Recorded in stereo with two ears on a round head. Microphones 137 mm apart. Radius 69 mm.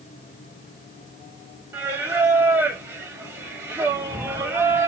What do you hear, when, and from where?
1.7 s singing: 15° right (ahead or behind), 0.9 m
3.9 s a cat meowing: 15° left (ahead or behind), 2.5 m